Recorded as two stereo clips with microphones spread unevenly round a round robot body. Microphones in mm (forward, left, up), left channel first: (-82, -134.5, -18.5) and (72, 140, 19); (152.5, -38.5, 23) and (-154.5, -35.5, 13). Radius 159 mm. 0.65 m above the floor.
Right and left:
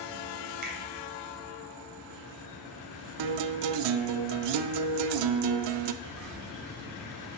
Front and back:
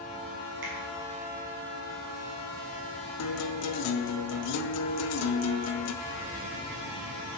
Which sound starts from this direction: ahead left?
A guitar, at 3.2 s.